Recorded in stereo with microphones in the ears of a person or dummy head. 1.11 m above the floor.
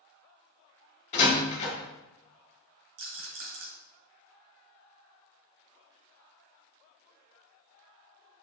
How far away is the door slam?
About 2 m.